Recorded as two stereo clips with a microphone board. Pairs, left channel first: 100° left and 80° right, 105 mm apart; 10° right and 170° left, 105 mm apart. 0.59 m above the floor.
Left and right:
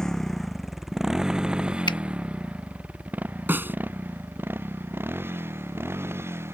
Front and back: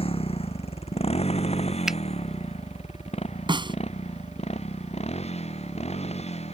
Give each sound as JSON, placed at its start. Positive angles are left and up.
{"t": 0.0, "sound": "a motorcycle", "azimuth_deg": 15}
{"t": 1.9, "sound": "a finger snap", "azimuth_deg": 85}
{"t": 3.5, "sound": "a snare drum", "azimuth_deg": -150}